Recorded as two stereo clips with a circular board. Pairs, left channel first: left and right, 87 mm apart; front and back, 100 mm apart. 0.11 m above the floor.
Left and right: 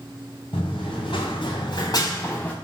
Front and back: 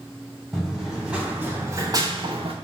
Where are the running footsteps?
90° left, 1.3 m; by 2.5 s 160° left, 0.7 m.